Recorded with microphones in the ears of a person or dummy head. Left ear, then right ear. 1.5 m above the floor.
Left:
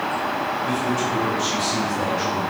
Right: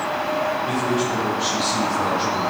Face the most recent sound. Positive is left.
turn(degrees=30)  # may be behind; listen again after turning